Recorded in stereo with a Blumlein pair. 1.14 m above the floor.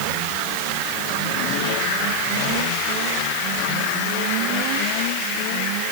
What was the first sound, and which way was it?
Only background noise.